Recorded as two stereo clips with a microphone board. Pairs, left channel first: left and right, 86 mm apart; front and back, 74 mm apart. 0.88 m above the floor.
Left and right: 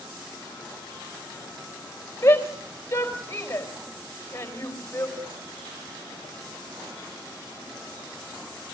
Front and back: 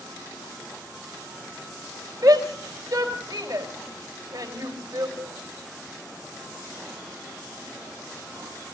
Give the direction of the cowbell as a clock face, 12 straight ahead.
4 o'clock.